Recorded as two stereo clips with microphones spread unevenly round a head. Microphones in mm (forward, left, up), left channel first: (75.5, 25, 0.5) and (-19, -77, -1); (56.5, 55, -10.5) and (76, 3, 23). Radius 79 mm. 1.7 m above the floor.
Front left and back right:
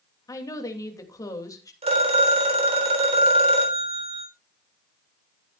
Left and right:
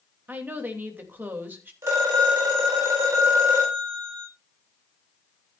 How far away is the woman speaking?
About 3 m.